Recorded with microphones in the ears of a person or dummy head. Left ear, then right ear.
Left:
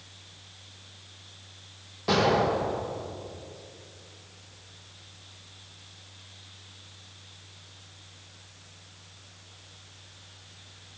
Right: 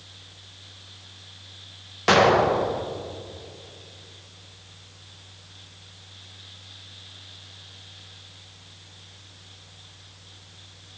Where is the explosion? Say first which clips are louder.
Right 6 dB; 55° right (ahead or behind), 0.9 m.